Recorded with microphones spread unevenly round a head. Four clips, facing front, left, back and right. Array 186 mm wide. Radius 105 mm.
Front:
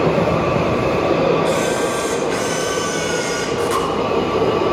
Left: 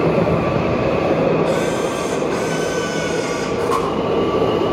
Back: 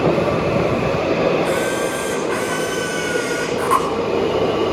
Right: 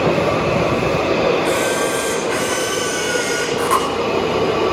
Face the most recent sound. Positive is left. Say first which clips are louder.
# even, front 2 dB
turn(degrees=-155)